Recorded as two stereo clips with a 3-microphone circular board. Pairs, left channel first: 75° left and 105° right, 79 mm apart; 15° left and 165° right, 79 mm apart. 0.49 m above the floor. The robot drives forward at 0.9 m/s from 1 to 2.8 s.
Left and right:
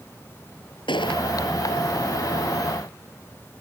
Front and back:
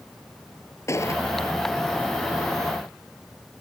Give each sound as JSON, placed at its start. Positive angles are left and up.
{"t": 0.9, "sound": "a gunshot", "azimuth_deg": 70}